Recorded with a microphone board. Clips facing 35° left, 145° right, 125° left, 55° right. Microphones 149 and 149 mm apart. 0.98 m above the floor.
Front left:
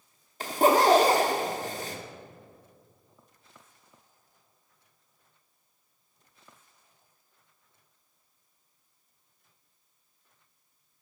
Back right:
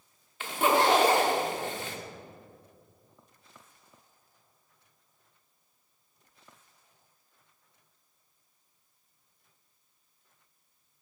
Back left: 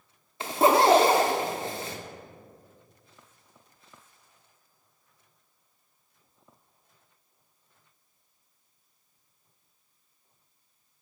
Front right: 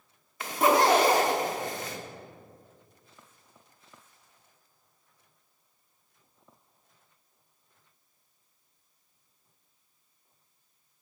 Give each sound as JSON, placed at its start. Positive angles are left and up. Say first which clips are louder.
{"t": 0.4, "sound": "a zipper", "louder": "front left 4 dB, back left 2 dB", "azimuth_deg": 70, "distance_m": 0.7}